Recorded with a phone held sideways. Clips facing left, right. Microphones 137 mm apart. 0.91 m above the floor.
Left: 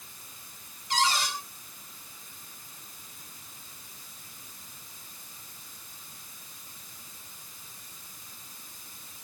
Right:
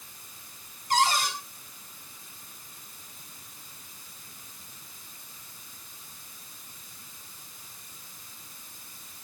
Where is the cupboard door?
55° right (ahead or behind), 5 m.